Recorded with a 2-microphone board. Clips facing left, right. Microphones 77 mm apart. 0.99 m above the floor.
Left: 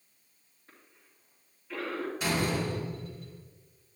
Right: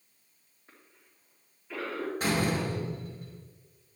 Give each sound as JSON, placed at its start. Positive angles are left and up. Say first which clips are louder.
{"t": 0.7, "sound": "a cough", "louder": "even", "side_deg": -15, "distance_m": 2.5}
{"t": 2.2, "sound": "a door slam", "louder": "right 2 dB", "side_deg": -50, "distance_m": 4.0}